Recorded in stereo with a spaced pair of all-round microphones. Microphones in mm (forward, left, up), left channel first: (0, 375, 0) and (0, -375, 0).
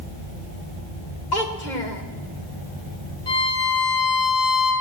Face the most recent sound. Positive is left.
turn(degrees=80)